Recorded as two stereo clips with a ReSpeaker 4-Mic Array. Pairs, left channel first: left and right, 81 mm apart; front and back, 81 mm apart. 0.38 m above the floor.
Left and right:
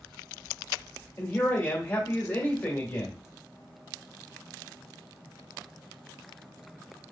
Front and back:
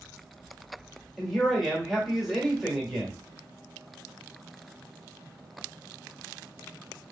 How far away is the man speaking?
About 1.3 m.